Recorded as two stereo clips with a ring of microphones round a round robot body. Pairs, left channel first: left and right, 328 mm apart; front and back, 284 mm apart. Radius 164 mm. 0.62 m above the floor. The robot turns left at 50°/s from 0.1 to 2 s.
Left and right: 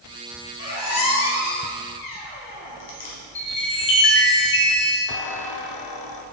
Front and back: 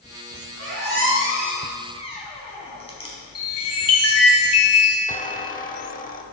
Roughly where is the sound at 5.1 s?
Ahead left.